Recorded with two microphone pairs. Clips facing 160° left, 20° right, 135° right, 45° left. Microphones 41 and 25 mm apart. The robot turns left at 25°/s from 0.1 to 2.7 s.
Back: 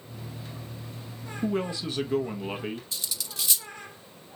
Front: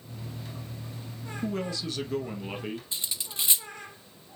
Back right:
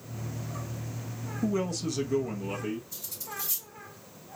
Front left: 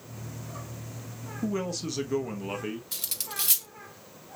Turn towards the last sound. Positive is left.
turn(degrees=40)